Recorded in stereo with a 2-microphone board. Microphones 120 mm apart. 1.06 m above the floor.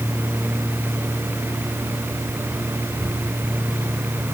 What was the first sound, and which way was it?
Only background noise.